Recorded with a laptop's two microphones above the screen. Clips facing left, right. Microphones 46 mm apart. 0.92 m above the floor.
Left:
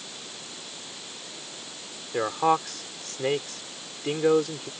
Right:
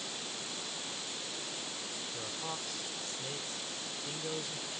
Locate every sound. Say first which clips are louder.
2.1 s a man speaking: left 21 dB; 70° left (ahead or behind)